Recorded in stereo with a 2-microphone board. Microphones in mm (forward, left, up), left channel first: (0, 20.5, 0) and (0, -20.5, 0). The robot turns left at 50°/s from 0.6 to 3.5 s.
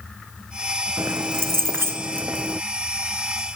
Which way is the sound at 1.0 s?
65° right.